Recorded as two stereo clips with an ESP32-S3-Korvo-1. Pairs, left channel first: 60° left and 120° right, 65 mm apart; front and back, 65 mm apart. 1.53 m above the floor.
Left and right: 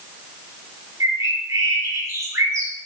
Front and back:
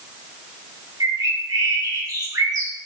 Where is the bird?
160° right, 1.3 m.